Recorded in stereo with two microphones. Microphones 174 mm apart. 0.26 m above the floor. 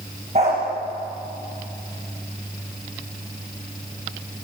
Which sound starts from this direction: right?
A dog barking, at 0.3 s.